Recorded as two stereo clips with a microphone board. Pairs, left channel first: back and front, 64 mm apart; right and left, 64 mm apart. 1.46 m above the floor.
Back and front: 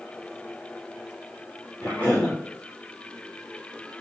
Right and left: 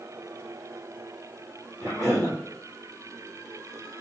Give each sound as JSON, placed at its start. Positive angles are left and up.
{"t": 1.8, "sound": "a cough", "azimuth_deg": 120, "distance_m": 3.0}